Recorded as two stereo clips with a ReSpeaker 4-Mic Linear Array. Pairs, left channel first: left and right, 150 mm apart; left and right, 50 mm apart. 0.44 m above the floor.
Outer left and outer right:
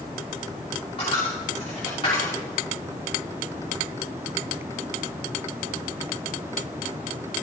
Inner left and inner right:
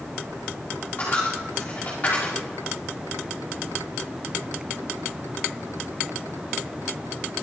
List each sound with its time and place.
1.0 s a dropped coin: 35° left (ahead or behind), 5.5 m